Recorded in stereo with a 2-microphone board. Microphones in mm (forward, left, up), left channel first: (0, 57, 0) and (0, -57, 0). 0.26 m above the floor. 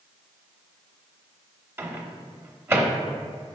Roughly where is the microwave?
Right.